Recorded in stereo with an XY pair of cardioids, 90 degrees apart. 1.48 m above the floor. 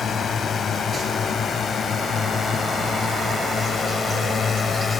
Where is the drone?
55° left; by 5.0 s 45° left.